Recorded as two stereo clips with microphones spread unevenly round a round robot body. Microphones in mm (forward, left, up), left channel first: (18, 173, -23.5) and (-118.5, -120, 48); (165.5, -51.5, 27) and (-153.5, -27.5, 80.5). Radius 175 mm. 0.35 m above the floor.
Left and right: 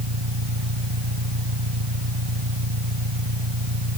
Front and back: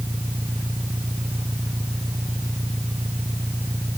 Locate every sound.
0.0 s an engine running: 100° right